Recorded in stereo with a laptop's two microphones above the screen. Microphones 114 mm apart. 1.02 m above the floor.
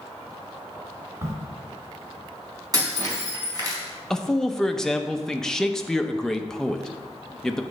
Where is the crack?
25° right (ahead or behind), 2.5 m.